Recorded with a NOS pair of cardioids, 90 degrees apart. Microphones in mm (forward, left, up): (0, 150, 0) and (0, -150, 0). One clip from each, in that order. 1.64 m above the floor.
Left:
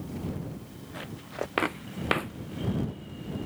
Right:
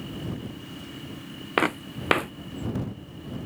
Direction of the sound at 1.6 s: 35° right.